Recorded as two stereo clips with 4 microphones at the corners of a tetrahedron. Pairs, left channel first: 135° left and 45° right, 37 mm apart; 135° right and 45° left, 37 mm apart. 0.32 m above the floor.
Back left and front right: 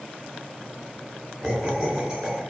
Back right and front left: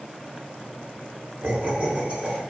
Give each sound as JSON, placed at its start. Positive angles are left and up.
{"t": 1.4, "sound": "laughter", "azimuth_deg": 10, "distance_m": 1.1}